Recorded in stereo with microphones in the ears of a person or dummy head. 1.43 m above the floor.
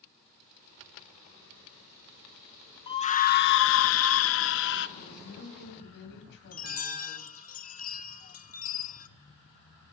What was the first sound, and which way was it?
A scream, 25° left (ahead or behind).